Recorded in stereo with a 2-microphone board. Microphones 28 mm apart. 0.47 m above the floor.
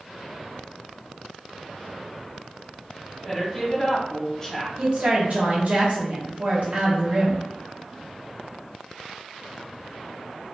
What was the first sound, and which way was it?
A woman speaking, 20° left (ahead or behind).